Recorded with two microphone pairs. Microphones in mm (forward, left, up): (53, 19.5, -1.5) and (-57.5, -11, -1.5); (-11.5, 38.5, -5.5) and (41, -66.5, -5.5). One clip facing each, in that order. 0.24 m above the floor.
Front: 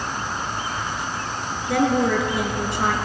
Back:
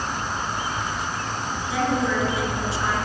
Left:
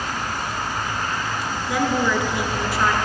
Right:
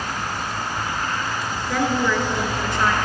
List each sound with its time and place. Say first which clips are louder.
1.7 s a woman speaking: front 4 dB, even; 35° left, 2.5 m